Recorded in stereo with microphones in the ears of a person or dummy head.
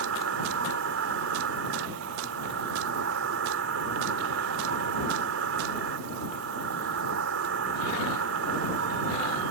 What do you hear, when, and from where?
0.0 s an insect: 80° right